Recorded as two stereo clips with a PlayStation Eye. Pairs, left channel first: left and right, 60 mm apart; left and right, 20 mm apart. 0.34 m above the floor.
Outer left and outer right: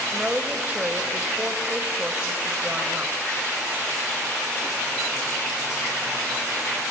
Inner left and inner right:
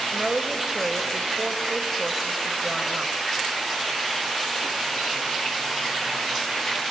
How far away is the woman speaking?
About 1.2 m.